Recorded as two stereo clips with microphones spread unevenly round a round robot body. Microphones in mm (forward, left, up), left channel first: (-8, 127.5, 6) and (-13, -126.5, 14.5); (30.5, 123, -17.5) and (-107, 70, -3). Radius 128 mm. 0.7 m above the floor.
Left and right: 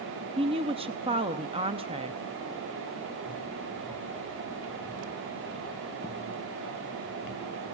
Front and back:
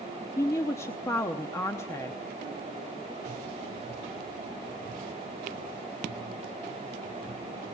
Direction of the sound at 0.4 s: 35° right.